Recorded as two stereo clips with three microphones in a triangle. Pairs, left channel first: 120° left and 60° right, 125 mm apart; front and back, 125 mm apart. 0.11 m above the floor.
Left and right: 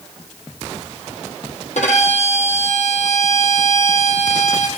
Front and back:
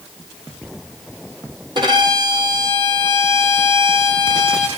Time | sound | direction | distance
1.8 | a violin | 130° left | 1.6 m